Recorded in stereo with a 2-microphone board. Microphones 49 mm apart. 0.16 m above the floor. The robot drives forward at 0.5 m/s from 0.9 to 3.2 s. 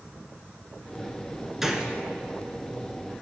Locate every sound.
1.6 s a gunshot: 10° right (ahead or behind), 0.6 m